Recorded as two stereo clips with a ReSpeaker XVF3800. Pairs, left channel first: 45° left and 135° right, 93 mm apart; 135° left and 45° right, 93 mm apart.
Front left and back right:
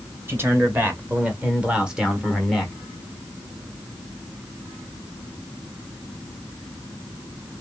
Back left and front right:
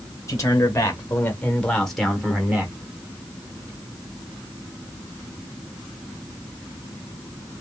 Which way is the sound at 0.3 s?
170° left.